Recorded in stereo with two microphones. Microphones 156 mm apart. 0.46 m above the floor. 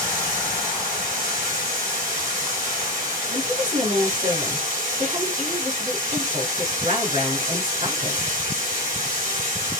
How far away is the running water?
About 2.0 m.